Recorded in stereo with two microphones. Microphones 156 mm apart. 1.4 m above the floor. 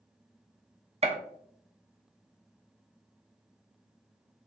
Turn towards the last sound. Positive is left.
turn(degrees=-45)  # may be behind; listen again after turning